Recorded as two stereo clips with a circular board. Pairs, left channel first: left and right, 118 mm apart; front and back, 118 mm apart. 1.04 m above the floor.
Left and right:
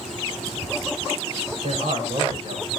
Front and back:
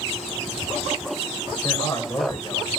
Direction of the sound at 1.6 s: 70° right.